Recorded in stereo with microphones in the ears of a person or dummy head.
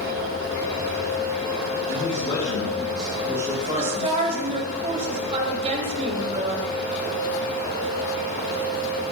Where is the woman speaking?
40° right (ahead or behind), 1.8 m.